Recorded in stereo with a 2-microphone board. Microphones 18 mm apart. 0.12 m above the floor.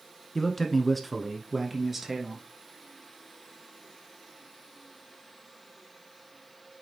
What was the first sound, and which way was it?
A man speaking, 20° left (ahead or behind).